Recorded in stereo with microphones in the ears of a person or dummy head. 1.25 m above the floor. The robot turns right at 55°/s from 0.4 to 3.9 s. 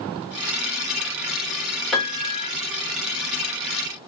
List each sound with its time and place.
1.9 s a piano: straight ahead, 2.5 m; by 2.5 s 35° left, 2.5 m